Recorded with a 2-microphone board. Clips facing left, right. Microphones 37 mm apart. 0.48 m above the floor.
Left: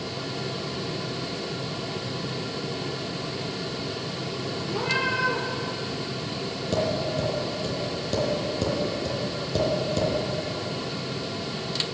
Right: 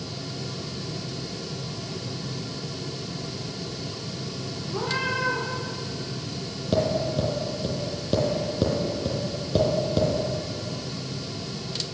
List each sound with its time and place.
4.7 s a cat meowing: 70° left (ahead or behind), 3 m
6.7 s tapping: 15° right (ahead or behind), 3.5 m